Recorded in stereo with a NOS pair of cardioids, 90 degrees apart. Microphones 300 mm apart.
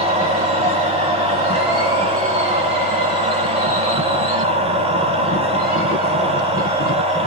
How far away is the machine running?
About 2.5 m.